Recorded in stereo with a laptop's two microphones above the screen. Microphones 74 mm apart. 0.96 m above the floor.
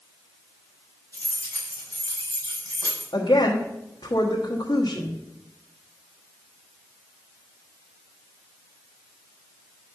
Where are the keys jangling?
45° right (ahead or behind), 4 m; by 3.0 s 50° right (ahead or behind), 5.5 m.